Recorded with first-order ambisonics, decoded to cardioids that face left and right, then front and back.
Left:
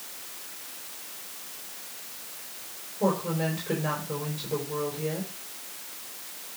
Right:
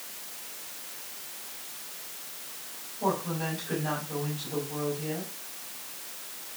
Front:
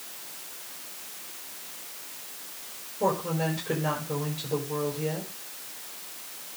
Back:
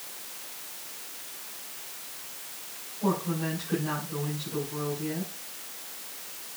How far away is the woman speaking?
About 5 m.